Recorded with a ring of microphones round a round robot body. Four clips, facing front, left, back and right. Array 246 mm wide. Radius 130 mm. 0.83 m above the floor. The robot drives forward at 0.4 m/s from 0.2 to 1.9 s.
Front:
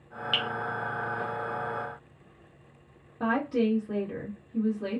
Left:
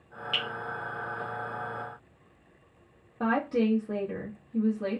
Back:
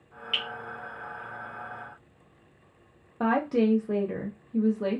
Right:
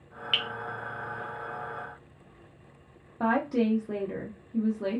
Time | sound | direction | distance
0.3 | dripping | 50° right | 0.8 m
3.2 | a woman speaking | 175° right | 0.9 m